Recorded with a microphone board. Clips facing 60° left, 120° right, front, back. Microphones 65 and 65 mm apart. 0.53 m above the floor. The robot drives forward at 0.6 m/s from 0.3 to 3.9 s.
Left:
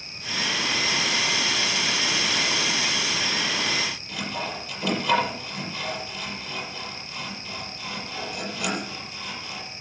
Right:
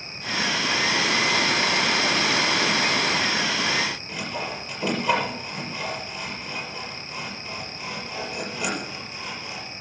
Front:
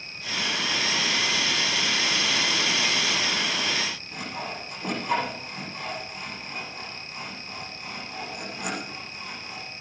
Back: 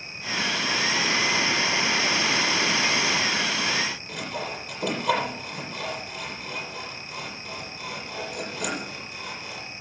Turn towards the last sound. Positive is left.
turn(degrees=180)